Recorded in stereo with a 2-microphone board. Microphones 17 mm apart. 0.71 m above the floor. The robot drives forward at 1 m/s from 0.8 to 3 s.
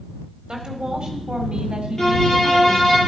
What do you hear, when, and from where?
0.5 s a woman speaking: 50° right (ahead or behind), 3 m; by 3.0 s 60° right (ahead or behind), 2.5 m
2.0 s a violin: 20° left (ahead or behind), 8.5 m; by 3.0 s 15° left (ahead or behind), 9.5 m